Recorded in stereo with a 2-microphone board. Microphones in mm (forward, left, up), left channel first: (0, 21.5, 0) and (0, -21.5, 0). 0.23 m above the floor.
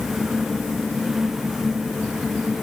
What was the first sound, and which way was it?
Only background noise.